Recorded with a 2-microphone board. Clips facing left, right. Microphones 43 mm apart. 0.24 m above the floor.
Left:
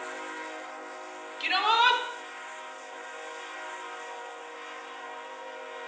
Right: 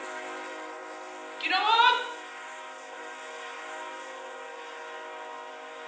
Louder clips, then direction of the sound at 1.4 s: Right 1 dB; 5° right (ahead or behind).